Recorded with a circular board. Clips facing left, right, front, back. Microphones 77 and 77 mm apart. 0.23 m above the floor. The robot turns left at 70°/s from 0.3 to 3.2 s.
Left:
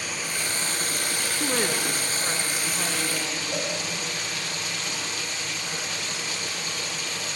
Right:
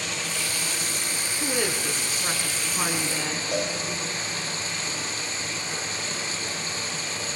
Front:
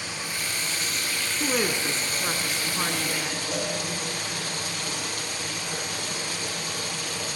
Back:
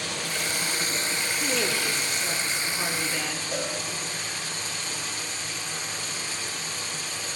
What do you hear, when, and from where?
0.0 s running water: 170° left, 6.5 m; by 7.4 s 30° right, 6.5 m
1.4 s a woman speaking: 45° left, 3 m; by 3.4 s 80° right, 3 m
3.5 s a cowbell: 85° right, 9.5 m